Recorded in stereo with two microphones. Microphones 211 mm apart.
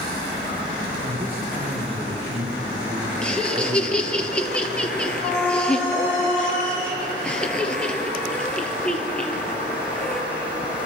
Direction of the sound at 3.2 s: 5° left (ahead or behind).